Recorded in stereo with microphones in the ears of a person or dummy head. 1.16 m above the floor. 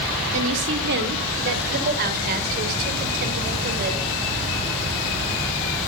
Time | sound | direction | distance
0.3 | a woman speaking | 65° right (ahead or behind) | 2.5 m